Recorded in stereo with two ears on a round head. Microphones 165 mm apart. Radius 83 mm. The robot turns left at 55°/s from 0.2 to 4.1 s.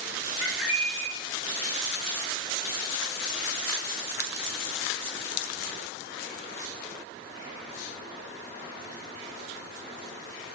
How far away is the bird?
About 0.6 m.